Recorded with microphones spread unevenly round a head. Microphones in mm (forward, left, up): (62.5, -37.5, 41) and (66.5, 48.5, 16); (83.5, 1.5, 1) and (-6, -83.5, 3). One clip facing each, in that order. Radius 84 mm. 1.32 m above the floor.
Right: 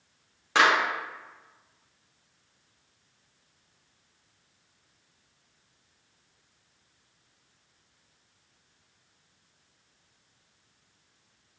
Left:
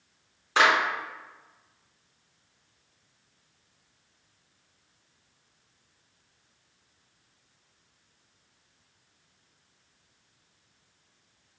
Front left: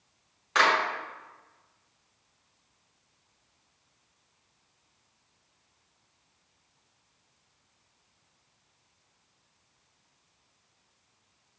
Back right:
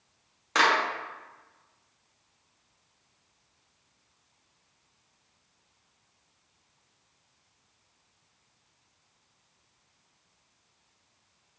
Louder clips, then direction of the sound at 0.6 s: Even, even; 90° right.